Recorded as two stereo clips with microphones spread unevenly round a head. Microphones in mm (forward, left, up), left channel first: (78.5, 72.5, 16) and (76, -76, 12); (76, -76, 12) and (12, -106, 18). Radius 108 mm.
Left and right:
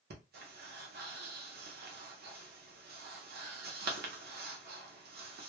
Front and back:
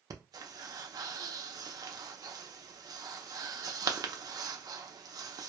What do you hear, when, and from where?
0.1 s breathing: 115° right, 0.6 m